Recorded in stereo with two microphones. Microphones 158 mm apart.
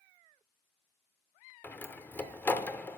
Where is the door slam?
10° left (ahead or behind), 0.6 m.